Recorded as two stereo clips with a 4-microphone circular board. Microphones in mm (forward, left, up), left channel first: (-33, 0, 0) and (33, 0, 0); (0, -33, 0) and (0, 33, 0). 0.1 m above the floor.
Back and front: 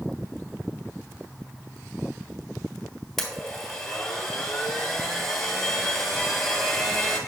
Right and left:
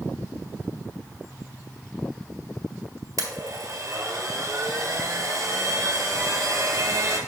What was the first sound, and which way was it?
A blender, 95° left.